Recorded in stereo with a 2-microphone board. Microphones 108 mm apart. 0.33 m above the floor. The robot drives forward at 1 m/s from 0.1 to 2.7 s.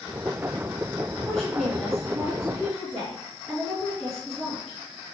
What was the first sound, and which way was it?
A woman speaking, centre (ahead or behind).